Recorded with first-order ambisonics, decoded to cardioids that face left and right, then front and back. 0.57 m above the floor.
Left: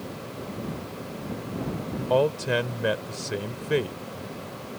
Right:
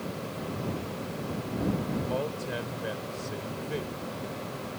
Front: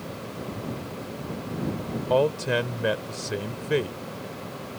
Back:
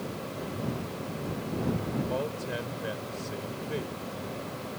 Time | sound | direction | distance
2.1 | a man speaking | 45° left | ?